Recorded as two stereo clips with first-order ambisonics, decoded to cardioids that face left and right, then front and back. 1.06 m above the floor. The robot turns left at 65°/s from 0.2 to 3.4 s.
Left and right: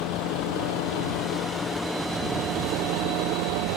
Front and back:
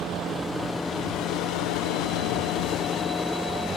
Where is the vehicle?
120° left; by 3.8 s 95° right.